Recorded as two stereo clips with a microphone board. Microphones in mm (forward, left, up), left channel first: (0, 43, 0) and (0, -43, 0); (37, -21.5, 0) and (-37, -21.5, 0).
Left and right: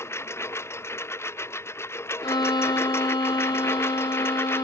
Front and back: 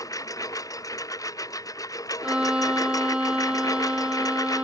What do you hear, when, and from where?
0.0 s a lawn mower: 35° left; by 4.6 s 30° left
2.2 s a violin: 105° left